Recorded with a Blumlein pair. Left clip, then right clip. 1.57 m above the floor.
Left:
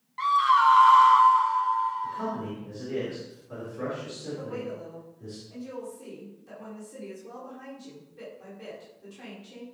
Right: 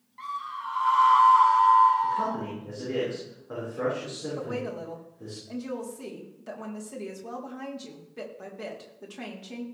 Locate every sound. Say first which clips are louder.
0.2 s a scream: left 14 dB; 60° left, 0.9 m; by 2.4 s 55° right, 1.1 m
2.0 s a man speaking: right 5 dB; 65° right, 6 m
4.4 s a woman speaking: right 3 dB; 45° right, 4 m